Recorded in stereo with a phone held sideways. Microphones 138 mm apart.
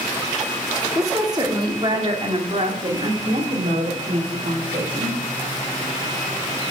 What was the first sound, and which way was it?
A woman speaking, 20° right (ahead or behind).